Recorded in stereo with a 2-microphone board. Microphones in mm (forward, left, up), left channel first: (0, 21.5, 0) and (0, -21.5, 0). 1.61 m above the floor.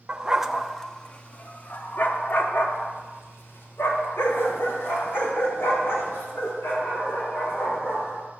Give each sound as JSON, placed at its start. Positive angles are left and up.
{"t": 0.1, "sound": "a dog barking", "side_deg": -20, "distance_m": 1.0}